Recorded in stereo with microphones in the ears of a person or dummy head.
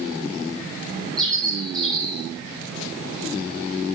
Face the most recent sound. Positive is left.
turn(degrees=5)  # may be behind; listen again after turning